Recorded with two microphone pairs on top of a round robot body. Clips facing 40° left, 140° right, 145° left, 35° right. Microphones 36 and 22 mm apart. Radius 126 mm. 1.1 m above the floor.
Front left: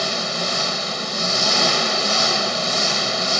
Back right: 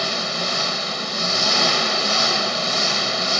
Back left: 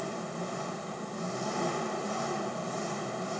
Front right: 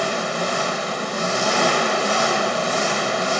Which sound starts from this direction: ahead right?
An engine running, at 0.0 s.